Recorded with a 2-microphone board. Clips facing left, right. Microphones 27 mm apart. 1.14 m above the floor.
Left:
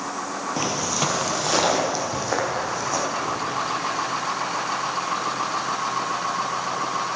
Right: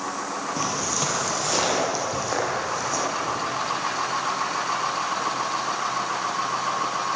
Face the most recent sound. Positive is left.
turn(degrees=10)  # may be behind; listen again after turning